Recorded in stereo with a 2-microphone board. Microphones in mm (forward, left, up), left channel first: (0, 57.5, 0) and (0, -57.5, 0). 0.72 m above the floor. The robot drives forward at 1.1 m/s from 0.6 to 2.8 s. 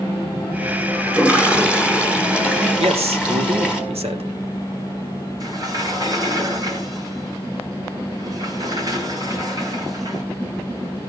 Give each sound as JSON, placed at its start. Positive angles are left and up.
{"t": 1.1, "sound": "a toilet flushing", "side_deg": -10, "distance_m": 2.5}
{"t": 2.8, "sound": "a man speaking", "side_deg": -65, "distance_m": 2.5}
{"t": 5.4, "sound": "a sliding door", "side_deg": -35, "distance_m": 5.0}